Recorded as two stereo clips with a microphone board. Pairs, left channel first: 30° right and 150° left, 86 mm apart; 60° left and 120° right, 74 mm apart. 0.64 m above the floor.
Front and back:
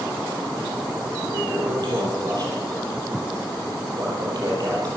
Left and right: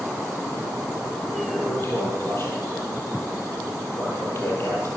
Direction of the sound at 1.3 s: 115° left.